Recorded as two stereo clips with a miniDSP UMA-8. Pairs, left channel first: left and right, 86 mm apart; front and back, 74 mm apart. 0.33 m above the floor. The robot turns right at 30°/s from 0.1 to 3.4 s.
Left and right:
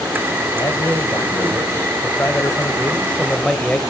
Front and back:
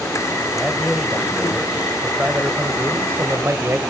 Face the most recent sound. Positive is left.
turn(degrees=165)